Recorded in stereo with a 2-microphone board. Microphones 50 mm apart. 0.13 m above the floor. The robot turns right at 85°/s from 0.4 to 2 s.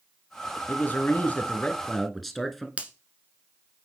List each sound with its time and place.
0.7 s a man speaking: 65° left, 1.3 m; by 2.7 s 175° left, 1.3 m
2.8 s a finger snap: 25° right (ahead or behind), 1.1 m